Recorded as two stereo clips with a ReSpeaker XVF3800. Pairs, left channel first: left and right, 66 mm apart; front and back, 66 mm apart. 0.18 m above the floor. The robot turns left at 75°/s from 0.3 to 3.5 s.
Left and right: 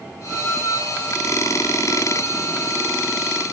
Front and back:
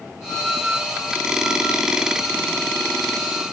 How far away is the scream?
No scream in this recording.